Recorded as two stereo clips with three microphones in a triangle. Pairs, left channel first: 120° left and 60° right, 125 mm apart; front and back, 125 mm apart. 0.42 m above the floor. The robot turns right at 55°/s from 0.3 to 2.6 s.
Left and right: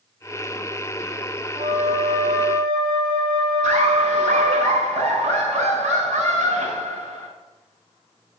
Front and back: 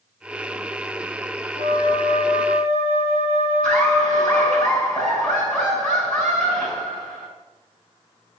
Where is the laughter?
80° right, 4.5 m.